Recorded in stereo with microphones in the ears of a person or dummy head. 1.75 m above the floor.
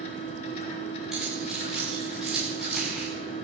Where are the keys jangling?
Centre (ahead or behind), 9 m.